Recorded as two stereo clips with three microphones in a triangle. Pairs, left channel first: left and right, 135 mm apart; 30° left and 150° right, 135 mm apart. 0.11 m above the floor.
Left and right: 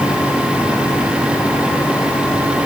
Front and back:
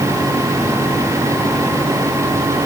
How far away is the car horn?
No car horn in this recording.